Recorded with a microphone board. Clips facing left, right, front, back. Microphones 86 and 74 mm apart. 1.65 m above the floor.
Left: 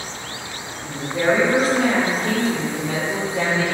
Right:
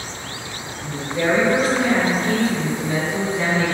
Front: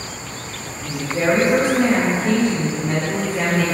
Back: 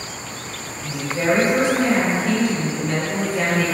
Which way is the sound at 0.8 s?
35° left.